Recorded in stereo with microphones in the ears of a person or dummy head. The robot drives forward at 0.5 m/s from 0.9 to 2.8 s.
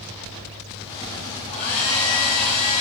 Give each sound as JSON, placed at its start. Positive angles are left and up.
{"t": 1.5, "sound": "a hair dryer", "side_deg": 40, "distance_m": 1.8}